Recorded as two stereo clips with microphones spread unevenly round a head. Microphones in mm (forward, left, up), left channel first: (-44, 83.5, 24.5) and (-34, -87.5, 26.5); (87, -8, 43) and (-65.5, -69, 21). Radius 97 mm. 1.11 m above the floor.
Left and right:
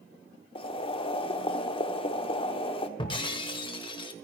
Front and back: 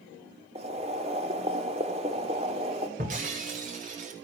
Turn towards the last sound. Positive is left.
turn(degrees=150)